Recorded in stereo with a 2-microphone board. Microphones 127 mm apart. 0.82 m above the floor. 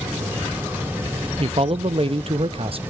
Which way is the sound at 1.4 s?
50° right (ahead or behind).